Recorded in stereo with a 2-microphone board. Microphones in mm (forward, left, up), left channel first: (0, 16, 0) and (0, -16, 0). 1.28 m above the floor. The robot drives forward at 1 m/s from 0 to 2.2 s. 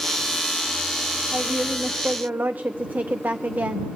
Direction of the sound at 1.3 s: 40° right (ahead or behind).